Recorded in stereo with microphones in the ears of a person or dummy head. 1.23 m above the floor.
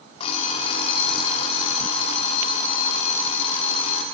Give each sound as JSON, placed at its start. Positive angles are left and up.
{"t": 0.2, "sound": "an alarm clock", "side_deg": 35, "distance_m": 1.3}